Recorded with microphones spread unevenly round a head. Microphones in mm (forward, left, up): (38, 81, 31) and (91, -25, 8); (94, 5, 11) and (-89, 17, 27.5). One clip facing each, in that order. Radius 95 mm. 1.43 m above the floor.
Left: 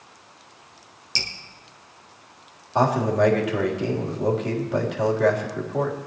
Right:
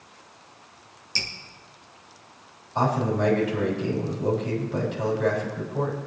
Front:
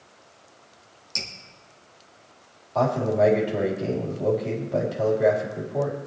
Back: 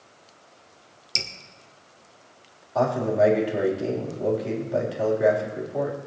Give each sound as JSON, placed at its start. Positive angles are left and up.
{"t": 1.1, "sound": "dripping", "azimuth_deg": 160, "distance_m": 1.3}
{"t": 2.8, "sound": "a man speaking", "azimuth_deg": 95, "distance_m": 3.5}